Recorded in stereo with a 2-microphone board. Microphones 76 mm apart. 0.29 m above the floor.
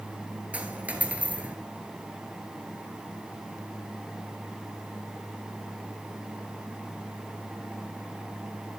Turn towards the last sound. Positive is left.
turn(degrees=-20)  # may be behind; listen again after turning